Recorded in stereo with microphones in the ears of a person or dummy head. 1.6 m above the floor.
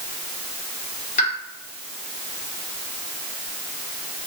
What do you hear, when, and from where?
1.2 s a pop: 45° left (ahead or behind), 1.9 m